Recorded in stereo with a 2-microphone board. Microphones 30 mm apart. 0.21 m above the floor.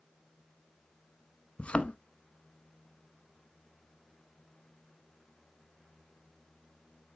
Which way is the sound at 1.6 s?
40° left (ahead or behind).